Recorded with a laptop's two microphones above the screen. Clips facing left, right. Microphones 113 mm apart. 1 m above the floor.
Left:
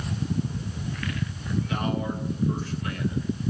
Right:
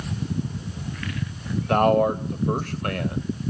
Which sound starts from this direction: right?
A man speaking, at 1.7 s.